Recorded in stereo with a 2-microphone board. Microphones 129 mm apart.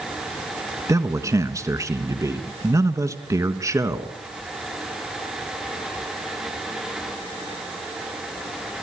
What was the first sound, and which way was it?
A man speaking, 25° right (ahead or behind).